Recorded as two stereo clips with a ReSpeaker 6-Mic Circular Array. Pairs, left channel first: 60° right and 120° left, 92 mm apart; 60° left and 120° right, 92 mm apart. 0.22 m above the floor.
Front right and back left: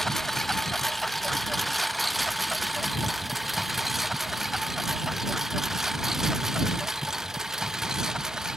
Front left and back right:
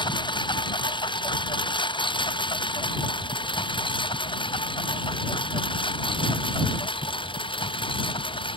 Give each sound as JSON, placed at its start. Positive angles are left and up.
{"t": 0.0, "sound": "a lawn mower", "azimuth_deg": 25}